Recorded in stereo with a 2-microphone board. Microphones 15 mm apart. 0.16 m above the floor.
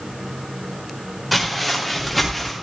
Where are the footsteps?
10° left (ahead or behind), 6.5 m; by 2.5 s 15° left (ahead or behind), 6 m.